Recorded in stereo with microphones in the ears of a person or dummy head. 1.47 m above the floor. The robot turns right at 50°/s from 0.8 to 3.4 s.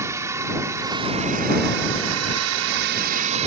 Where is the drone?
165° right; by 3.5 s 35° right.